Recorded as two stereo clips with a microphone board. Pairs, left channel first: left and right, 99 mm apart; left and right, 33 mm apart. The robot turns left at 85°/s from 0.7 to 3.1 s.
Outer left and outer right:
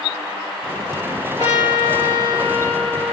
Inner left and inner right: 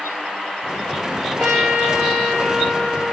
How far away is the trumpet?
About 2.5 m.